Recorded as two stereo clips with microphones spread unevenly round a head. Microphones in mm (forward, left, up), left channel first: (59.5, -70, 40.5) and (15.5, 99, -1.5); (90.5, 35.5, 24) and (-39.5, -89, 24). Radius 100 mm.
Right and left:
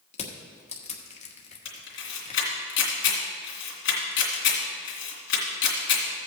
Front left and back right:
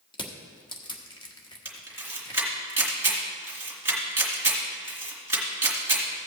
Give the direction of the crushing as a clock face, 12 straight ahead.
1 o'clock.